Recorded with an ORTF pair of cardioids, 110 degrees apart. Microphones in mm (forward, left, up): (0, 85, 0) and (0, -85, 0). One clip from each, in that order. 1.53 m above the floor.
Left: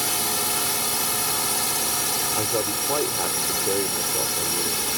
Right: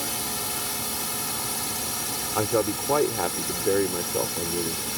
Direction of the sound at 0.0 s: 40° left.